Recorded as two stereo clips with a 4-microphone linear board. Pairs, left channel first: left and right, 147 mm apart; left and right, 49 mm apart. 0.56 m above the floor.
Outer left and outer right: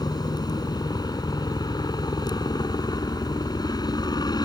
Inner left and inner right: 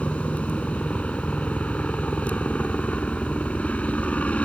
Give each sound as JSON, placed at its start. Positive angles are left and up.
{"t": 0.0, "sound": "a helicopter", "side_deg": 30}